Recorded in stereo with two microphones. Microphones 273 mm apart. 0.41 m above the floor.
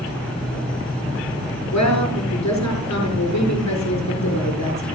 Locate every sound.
1.7 s a woman speaking: 80° left, 6 m